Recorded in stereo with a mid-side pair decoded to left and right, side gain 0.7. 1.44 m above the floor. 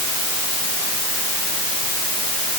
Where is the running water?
No running water in this recording.